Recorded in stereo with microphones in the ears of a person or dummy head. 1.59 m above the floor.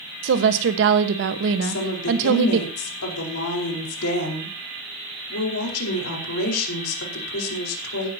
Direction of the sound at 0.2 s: 70° right (ahead or behind).